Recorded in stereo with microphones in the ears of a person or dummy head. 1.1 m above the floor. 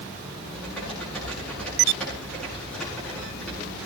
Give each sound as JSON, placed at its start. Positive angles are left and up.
{"t": 0.5, "sound": "typing on a keyboard", "side_deg": 10, "distance_m": 8.5}